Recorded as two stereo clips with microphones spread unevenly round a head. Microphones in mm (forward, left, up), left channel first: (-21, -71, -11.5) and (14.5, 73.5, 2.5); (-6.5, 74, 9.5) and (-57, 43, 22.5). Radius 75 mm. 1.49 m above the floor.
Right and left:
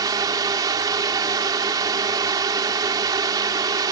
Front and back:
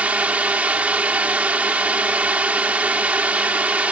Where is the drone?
145° left.